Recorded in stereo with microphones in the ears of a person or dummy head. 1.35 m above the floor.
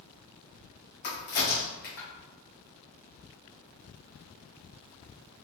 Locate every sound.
1.0 s a crack: 50° left (ahead or behind), 1.4 m